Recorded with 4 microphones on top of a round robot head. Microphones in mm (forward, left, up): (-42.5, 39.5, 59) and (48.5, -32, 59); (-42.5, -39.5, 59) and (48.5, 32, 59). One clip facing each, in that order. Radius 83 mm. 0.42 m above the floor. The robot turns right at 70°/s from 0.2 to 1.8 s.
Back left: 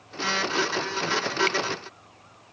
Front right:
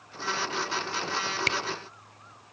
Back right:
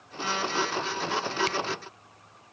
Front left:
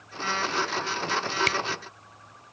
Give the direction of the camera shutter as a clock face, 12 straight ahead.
12 o'clock.